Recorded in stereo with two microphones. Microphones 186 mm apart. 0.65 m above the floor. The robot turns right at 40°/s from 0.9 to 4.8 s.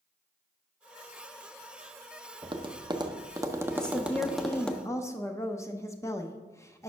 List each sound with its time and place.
2.4 s tapping: 25° right (ahead or behind), 0.5 m; by 4.8 s 5° left (ahead or behind), 0.5 m
3.8 s a woman speaking: 5° left (ahead or behind), 0.5 m; by 6.9 s 15° left (ahead or behind), 0.5 m